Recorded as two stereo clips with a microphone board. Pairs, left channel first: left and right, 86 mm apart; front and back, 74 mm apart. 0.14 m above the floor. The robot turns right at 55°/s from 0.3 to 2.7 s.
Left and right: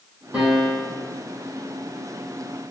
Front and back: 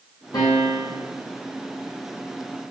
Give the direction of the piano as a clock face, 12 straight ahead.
1 o'clock.